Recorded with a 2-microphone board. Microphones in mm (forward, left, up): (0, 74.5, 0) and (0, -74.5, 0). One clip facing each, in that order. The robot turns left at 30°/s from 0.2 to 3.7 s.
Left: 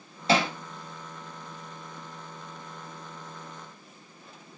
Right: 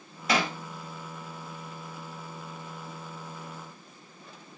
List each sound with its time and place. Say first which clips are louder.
0.3 s hammering: left 3 dB; 30° left (ahead or behind), 0.5 m